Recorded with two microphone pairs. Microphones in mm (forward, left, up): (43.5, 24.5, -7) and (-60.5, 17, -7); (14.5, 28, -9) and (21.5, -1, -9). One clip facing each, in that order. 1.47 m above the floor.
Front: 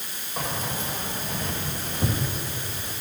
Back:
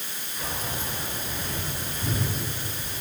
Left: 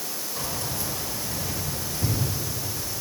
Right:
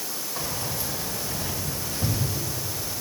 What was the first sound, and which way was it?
Keys jangling, 5° right.